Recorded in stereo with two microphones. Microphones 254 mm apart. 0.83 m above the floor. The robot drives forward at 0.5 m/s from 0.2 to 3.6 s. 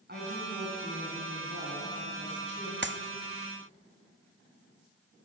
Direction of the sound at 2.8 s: 45° right (ahead or behind).